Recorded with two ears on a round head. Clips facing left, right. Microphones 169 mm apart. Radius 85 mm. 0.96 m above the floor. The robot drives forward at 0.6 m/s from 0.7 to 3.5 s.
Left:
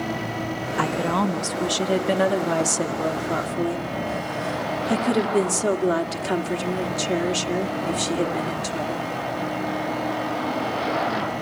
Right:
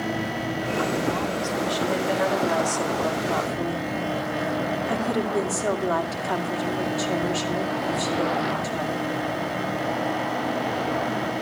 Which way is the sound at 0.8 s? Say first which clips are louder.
Left 3 dB; 75° left (ahead or behind).